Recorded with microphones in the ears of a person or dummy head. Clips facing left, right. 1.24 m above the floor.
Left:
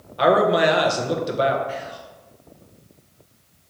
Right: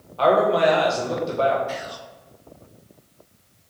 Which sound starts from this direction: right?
Whispering, at 1.7 s.